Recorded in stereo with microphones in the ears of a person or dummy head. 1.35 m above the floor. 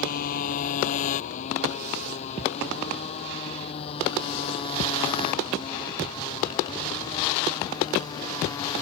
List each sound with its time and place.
0.0 s a motorcycle: 50° left (ahead or behind); by 8.8 s 20° left (ahead or behind)